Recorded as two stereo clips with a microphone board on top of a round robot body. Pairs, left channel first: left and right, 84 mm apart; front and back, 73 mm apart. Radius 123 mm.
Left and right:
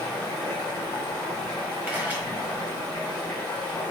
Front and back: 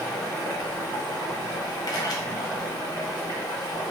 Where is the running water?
25° left, 1.4 m.